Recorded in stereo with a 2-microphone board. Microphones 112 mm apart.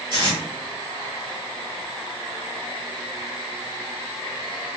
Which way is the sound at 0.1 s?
45° right (ahead or behind).